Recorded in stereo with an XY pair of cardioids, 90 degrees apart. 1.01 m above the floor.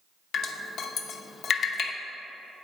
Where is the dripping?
70° left, 0.6 m.